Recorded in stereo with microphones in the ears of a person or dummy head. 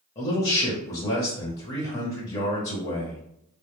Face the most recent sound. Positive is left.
turn(degrees=30)  # may be behind; listen again after turning